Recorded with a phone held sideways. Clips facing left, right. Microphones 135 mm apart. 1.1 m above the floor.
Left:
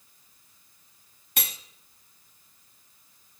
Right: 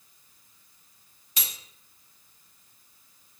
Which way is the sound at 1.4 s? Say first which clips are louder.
Left 5 dB; 60° left (ahead or behind).